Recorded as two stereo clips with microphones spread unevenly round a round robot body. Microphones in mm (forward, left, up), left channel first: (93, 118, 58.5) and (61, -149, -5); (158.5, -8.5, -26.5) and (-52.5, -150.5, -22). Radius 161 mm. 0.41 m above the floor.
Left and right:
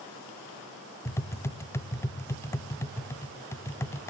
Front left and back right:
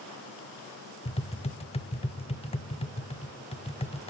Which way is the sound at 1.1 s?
10° right.